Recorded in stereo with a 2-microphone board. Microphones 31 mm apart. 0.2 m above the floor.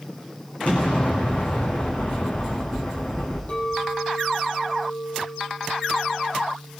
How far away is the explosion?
About 7 m.